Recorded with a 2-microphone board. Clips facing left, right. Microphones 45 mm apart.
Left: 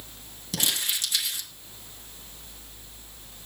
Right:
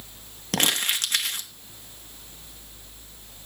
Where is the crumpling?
50° right (ahead or behind), 1.4 m.